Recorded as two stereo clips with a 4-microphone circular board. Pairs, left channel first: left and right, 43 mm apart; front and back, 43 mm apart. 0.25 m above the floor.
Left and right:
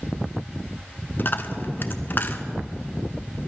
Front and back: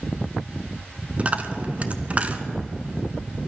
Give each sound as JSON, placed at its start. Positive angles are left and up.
{"t": 1.2, "sound": "a dropped coin", "azimuth_deg": 125, "distance_m": 0.8}